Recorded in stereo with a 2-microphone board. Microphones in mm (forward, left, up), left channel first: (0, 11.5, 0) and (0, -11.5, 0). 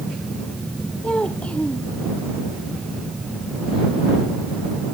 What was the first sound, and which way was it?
A child speaking, 50° left (ahead or behind).